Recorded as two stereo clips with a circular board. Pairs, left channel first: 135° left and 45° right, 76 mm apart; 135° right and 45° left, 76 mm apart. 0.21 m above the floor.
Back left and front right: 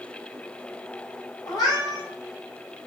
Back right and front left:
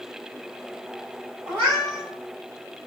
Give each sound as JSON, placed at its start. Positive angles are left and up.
{"t": 1.5, "sound": "a cat meowing", "azimuth_deg": 100, "distance_m": 1.4}